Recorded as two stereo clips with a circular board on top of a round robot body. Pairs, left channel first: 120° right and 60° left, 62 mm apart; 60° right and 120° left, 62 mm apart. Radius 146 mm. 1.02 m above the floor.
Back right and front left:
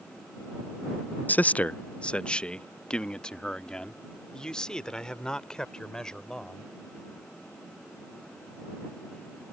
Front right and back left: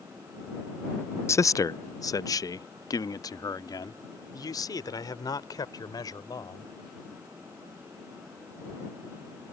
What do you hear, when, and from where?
1.3 s a man speaking: 70° right; by 6.7 s 40° right